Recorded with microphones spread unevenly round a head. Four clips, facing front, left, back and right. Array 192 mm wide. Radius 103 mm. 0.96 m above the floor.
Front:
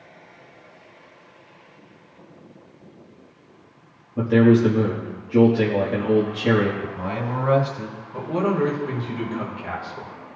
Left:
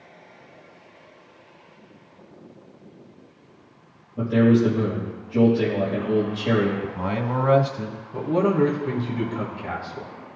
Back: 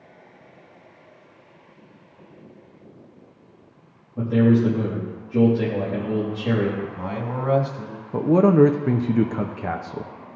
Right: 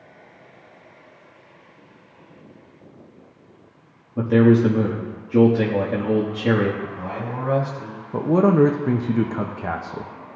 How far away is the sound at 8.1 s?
About 0.6 m.